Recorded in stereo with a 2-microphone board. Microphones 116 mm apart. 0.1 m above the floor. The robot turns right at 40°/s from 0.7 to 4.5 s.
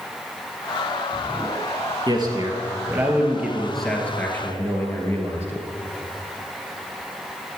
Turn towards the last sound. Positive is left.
turn(degrees=30)